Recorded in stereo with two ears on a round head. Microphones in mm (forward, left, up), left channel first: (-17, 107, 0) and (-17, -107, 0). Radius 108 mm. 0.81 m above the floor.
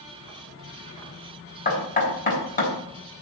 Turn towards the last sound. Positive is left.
turn(degrees=35)  # may be behind; listen again after turning